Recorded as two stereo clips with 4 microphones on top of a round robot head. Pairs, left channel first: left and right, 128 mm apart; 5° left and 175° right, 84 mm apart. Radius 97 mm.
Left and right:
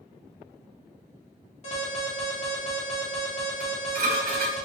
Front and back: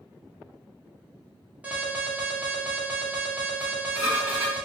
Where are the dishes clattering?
115° right, 1.4 m.